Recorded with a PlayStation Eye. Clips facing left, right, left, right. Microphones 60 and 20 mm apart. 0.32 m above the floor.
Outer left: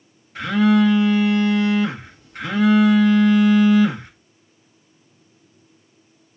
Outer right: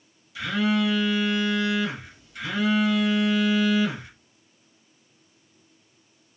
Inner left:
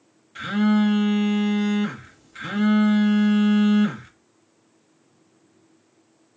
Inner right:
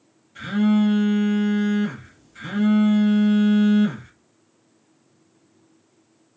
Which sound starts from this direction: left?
A phone buzzing, at 0.3 s.